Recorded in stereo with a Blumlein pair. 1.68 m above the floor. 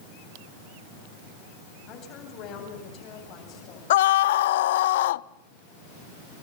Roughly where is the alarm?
I don't hear an alarm.